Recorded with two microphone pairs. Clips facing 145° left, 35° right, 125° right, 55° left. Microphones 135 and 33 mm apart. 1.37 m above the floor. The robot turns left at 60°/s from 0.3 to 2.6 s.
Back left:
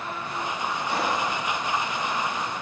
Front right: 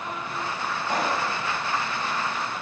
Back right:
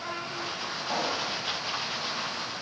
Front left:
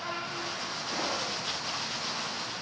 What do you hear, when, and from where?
0.9 s a pop: 75° right, 4.5 m; by 1.3 s 95° right, 4.5 m